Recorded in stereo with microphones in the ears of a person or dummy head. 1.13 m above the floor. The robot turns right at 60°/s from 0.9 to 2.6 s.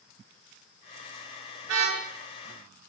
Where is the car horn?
75° right (ahead or behind), 9 m; by 2.0 s 80° right, 9 m.